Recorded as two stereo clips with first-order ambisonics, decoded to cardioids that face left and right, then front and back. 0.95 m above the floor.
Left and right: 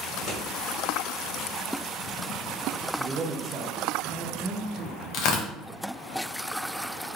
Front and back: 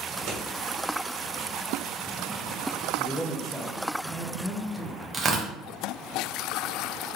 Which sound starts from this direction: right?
A man speaking, at 3.0 s.